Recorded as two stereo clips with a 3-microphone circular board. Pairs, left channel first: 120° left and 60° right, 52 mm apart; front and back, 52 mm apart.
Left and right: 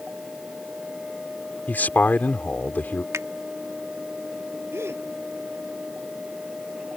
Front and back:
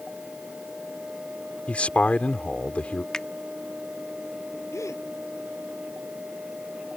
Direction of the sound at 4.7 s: 20° right.